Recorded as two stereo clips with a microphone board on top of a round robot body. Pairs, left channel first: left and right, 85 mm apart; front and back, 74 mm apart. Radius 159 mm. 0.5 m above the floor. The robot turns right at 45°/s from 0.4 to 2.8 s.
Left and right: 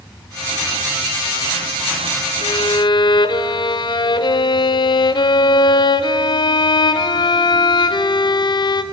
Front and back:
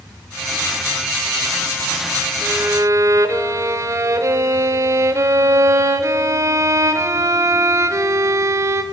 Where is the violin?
110° left, 0.6 m; by 8.8 s 130° left, 0.6 m.